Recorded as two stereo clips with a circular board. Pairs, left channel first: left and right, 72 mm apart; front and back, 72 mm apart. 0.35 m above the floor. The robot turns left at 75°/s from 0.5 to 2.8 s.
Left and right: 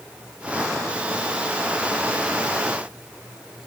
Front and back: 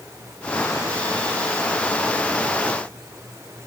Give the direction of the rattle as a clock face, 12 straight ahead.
I don't hear a rattle.